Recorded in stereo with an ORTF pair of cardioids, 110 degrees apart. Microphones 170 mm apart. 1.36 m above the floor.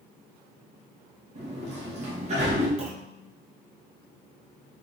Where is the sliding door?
40° right, 1.6 m.